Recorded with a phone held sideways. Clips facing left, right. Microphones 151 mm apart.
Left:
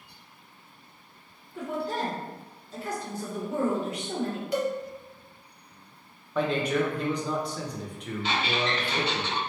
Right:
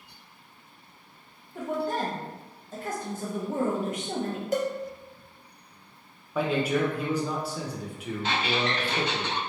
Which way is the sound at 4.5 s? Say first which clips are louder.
Right 1 dB; 45° right (ahead or behind).